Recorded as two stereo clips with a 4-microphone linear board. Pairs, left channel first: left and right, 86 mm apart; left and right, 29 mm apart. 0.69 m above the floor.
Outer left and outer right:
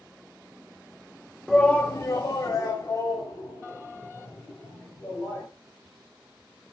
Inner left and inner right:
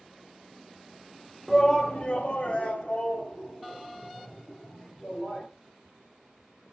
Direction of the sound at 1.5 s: 5° left (ahead or behind).